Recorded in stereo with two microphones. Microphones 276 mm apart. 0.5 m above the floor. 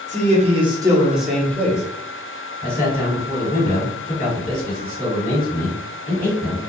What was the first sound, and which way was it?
A man speaking, 25° right (ahead or behind).